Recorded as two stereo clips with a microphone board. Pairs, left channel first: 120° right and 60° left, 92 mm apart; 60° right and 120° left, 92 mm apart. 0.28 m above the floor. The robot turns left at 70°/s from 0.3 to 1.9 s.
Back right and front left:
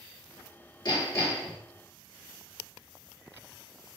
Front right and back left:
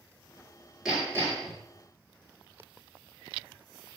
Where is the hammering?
155° right, 3.5 m; by 1.6 s 155° left, 3.5 m.